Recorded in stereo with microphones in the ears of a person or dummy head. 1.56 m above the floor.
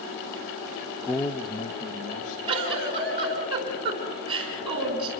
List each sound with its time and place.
1.0 s a man speaking: 5° right (ahead or behind), 0.7 m; by 2.4 s 45° left (ahead or behind), 2 m
2.5 s a giggle: 30° right (ahead or behind), 4.5 m